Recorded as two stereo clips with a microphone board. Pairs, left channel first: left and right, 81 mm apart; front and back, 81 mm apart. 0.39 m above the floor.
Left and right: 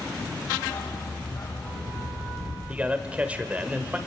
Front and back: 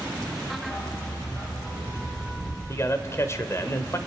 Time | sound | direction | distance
0.6 | a dog barking | 60° left | 7.5 m
2.7 | a man speaking | 30° right | 1.2 m